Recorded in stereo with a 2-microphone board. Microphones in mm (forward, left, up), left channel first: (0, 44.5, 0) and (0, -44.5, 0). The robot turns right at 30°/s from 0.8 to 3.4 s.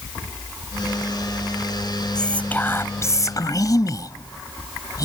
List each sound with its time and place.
2.1 s whispering: 10° left; by 5.0 s 45° left